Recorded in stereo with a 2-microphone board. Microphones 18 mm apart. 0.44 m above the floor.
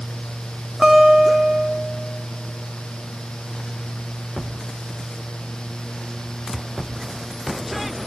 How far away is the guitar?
About 1.8 m.